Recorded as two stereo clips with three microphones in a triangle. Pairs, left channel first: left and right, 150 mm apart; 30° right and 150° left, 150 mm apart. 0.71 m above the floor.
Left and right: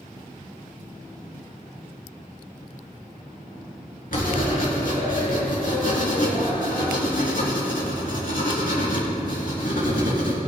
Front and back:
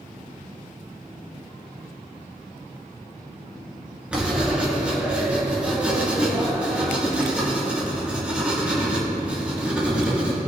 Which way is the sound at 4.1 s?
70° left.